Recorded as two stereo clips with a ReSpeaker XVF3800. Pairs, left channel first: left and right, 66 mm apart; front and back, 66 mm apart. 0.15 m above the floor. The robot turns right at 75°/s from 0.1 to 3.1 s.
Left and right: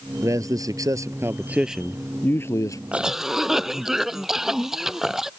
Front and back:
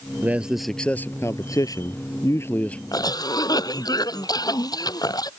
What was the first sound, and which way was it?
A man speaking, 120° right.